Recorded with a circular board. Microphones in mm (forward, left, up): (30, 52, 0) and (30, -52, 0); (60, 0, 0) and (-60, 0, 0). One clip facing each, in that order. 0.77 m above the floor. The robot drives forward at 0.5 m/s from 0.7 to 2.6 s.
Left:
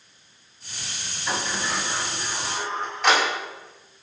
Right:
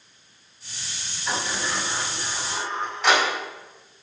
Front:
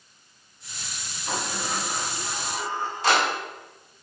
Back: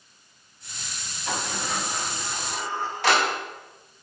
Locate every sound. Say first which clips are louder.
1.3 s a sliding door: even, even; straight behind, 5 m